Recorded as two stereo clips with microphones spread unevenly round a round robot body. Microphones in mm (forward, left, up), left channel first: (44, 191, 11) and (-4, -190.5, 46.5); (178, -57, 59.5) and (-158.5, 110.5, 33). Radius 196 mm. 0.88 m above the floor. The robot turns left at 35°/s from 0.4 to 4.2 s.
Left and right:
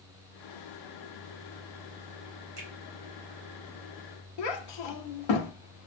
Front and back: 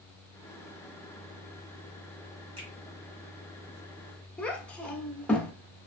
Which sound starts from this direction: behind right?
A finger snap, at 2.6 s.